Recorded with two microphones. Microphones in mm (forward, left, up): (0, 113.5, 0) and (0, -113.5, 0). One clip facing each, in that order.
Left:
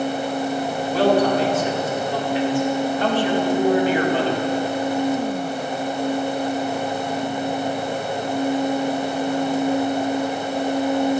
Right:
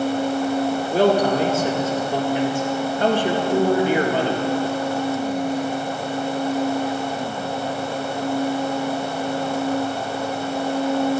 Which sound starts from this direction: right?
A man speaking, at 0.9 s.